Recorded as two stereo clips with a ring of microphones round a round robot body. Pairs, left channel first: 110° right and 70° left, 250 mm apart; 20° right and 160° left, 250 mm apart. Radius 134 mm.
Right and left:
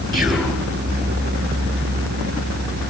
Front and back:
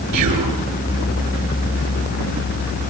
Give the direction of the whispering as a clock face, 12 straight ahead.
7 o'clock.